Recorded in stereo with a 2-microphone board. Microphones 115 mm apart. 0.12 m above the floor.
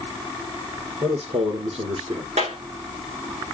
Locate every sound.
1.0 s a man speaking: 60° right (ahead or behind), 3 m
2.4 s a clap: 80° right, 7.5 m